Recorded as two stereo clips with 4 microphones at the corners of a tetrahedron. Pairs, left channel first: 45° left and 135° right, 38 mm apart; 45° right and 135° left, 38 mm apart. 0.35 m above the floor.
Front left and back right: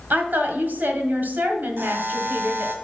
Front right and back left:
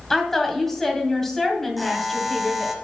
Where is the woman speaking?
125° right, 1.9 m.